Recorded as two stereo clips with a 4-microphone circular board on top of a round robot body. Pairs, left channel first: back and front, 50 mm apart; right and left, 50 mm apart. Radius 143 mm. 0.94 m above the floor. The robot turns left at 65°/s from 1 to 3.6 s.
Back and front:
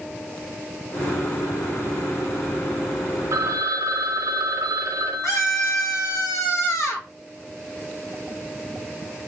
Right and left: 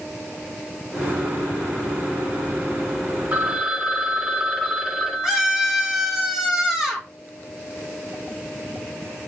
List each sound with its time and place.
3.3 s a phone ringing: 30° left, 0.6 m; by 6.2 s 10° left, 0.6 m
5.2 s a scream: 170° left, 1.6 m